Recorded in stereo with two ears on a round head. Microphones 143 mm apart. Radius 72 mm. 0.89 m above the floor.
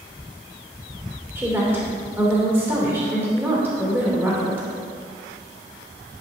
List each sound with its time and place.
1.4 s a woman speaking: 15° right (ahead or behind), 2.5 m